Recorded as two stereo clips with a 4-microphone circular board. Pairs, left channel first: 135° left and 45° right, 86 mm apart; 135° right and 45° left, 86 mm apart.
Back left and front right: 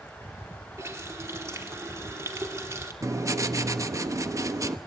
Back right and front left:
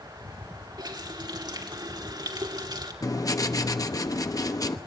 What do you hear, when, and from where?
0.8 s a running tap: 10° left, 2.5 m
3.0 s writing: 95° right, 1.1 m